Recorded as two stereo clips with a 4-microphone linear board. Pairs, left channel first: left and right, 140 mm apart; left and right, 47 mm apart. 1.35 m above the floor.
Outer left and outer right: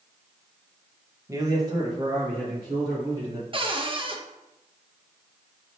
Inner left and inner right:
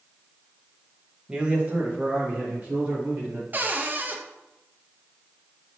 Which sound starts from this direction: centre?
A man speaking, at 1.3 s.